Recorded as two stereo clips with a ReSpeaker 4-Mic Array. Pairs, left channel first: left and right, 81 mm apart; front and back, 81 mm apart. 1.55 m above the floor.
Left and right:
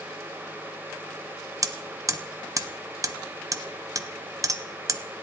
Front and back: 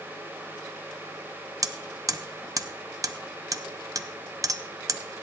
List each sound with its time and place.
1.6 s hammering: 135° right, 0.6 m